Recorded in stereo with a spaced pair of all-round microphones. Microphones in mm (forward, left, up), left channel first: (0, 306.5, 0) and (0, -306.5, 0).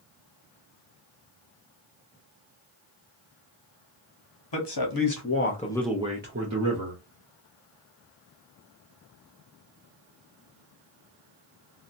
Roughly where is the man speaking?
Left.